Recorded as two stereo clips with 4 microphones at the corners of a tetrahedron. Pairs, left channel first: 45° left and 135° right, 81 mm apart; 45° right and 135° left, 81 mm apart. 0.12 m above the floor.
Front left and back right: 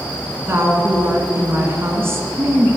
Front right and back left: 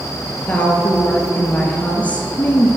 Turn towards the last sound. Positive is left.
turn(degrees=-105)